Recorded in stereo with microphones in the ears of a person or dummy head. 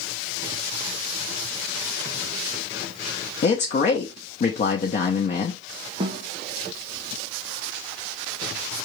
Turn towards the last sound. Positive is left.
turn(degrees=-30)  # may be behind; listen again after turning